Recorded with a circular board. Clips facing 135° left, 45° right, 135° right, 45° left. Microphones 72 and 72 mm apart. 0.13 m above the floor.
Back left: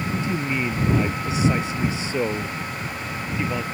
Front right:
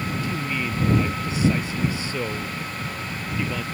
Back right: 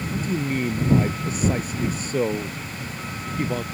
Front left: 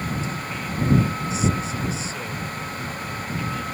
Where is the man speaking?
160° right.